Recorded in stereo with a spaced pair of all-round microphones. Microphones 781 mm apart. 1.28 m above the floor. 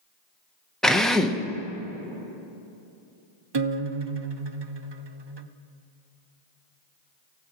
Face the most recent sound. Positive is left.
turn(degrees=-40)  # may be behind; listen again after turning